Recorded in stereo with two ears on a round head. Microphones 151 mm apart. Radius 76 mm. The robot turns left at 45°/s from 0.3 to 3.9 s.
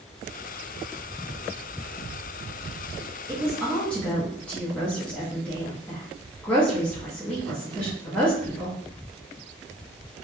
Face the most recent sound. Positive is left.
turn(degrees=10)  # may be behind; listen again after turning